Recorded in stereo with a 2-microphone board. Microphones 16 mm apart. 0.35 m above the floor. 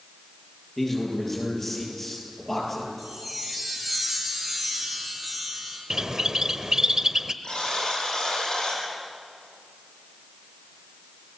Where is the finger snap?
I don't hear a finger snap.